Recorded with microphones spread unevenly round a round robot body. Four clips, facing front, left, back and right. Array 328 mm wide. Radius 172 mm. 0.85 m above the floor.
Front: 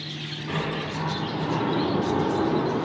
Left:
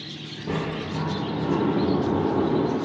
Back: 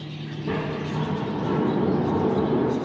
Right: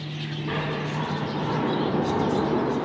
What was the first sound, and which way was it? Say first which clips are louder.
A sliding door: left 1 dB, back 2 dB; 140° left.